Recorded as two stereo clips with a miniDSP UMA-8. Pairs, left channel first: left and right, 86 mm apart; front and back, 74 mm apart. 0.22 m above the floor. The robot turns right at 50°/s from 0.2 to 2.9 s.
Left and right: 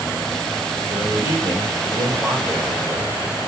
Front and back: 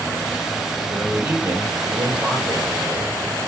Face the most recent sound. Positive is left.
turn(degrees=-165)